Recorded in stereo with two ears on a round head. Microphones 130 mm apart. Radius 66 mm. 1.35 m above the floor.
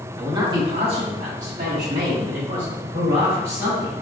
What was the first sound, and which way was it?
A man speaking, 25° right (ahead or behind).